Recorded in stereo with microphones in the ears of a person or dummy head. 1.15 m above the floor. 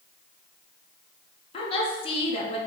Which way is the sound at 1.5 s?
25° left (ahead or behind).